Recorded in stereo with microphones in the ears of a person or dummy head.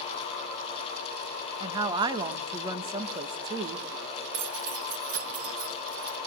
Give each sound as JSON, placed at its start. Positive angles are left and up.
{"t": 1.6, "sound": "a woman speaking", "side_deg": -25, "distance_m": 1.3}
{"t": 4.3, "sound": "keys jangling", "side_deg": -70, "distance_m": 1.3}